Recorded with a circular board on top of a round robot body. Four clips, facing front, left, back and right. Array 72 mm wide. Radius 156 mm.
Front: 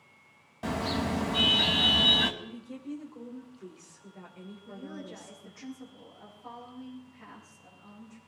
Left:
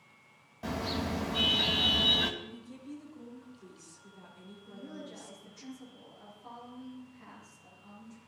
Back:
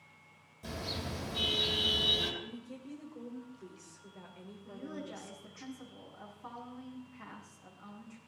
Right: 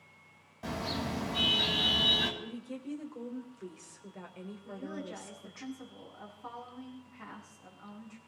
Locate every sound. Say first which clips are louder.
0.6 s a car horn: left 1 dB, front 10 dB; 5° left, 2 m
2.4 s a woman speaking: right 5 dB, front 4 dB; 85° right, 4 m
4.6 s a woman speaking: right 4 dB, even; 125° right, 7.5 m